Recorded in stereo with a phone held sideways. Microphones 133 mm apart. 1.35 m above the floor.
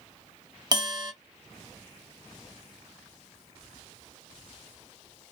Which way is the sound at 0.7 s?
30° right (ahead or behind).